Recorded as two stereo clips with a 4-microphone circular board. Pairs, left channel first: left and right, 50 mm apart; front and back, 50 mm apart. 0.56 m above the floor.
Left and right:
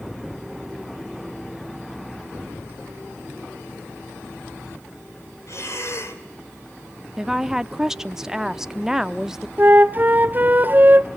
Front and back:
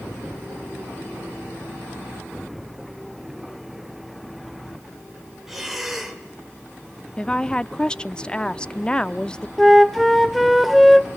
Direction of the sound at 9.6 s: 90° right.